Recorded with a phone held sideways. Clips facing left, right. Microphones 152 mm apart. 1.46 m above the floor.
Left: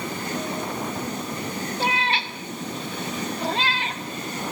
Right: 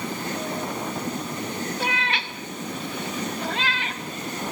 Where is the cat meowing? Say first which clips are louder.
Left 3 dB; 35° left (ahead or behind), 1.5 m.